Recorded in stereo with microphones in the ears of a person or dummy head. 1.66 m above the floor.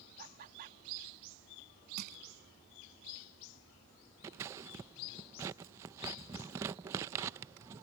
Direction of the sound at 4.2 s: 15° right (ahead or behind).